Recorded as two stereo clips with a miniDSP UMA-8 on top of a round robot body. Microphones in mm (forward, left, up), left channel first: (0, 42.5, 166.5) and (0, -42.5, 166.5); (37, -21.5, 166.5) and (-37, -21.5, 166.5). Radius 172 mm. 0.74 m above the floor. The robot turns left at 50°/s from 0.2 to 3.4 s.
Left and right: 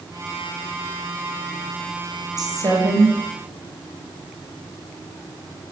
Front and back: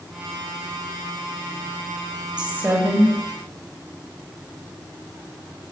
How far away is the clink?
I don't hear a clink.